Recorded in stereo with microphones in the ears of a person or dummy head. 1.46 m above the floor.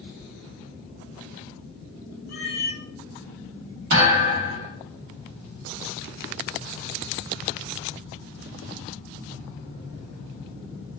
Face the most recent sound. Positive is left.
turn(degrees=-55)  # may be behind; listen again after turning